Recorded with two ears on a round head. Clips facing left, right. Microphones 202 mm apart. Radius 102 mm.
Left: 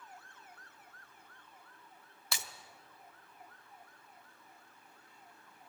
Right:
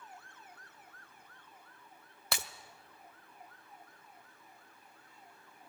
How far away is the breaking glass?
About 1.0 m.